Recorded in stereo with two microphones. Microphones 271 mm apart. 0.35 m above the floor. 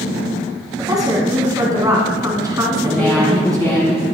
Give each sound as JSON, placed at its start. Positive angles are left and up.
{"t": 0.8, "sound": "a woman speaking", "side_deg": -15, "distance_m": 3.0}
{"t": 2.8, "sound": "a woman speaking", "side_deg": 5, "distance_m": 4.0}